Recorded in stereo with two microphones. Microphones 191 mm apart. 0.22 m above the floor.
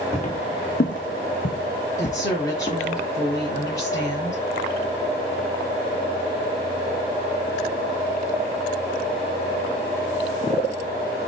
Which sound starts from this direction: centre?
A woman speaking, at 2.0 s.